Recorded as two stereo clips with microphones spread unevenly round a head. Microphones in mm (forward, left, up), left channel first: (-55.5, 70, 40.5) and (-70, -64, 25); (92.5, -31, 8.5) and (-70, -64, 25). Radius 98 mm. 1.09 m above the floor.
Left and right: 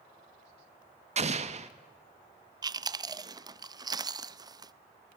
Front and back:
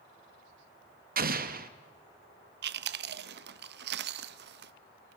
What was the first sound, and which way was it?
An explosion, 135° right.